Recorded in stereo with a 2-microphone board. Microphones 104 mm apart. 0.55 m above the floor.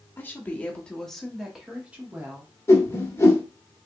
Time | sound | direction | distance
0.2 | a woman speaking | 20° left (ahead or behind) | 1.0 m
2.7 | a whoosh | 30° left (ahead or behind) | 0.9 m